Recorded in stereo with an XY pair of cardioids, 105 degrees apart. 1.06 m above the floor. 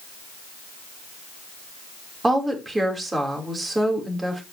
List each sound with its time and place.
2.2 s a woman speaking: 20° right, 3 m